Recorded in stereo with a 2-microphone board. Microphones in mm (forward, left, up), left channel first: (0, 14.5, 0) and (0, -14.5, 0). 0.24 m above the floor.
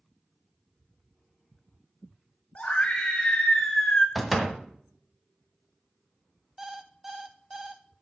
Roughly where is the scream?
Left.